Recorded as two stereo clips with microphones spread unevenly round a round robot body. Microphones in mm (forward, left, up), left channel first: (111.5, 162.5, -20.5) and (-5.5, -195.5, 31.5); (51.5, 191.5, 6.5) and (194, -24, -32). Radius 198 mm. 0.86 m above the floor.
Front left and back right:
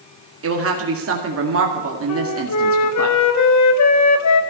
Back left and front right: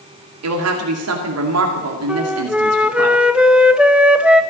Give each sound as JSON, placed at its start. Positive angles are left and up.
{"t": 0.4, "sound": "a woman speaking", "azimuth_deg": -50, "distance_m": 2.0}
{"t": 2.1, "sound": "a flute", "azimuth_deg": 30, "distance_m": 1.3}